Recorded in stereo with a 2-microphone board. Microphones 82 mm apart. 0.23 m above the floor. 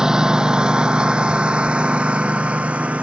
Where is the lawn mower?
10° right (ahead or behind); by 3.0 s 15° right (ahead or behind).